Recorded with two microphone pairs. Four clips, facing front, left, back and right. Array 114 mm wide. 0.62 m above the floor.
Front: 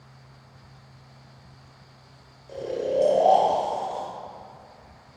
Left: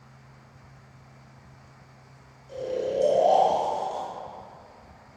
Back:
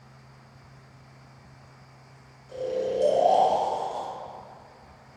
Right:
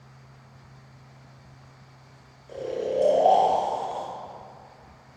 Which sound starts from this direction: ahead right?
Snoring, at 2.5 s.